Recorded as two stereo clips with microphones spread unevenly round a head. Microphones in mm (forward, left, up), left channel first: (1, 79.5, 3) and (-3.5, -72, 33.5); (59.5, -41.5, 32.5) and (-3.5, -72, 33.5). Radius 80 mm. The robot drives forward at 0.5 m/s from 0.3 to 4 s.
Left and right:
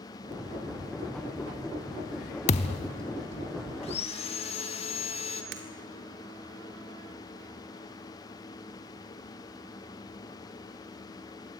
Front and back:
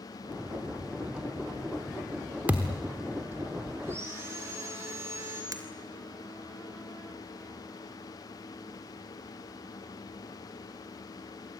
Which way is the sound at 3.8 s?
135° left.